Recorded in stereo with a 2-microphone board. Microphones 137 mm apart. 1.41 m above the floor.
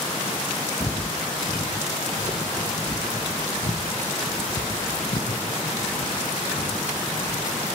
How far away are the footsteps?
About 2 m.